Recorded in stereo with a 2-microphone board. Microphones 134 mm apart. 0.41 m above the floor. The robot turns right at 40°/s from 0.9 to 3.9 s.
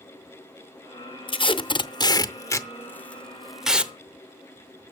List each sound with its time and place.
1.3 s tape being pulled: 40° left (ahead or behind), 0.7 m; by 3.9 s 10° right (ahead or behind), 0.7 m